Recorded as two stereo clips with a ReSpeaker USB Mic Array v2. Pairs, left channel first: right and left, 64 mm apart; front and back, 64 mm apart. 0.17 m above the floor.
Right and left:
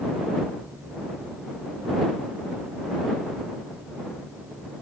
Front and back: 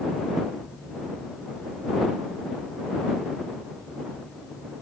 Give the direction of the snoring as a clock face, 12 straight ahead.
I don't hear snoring.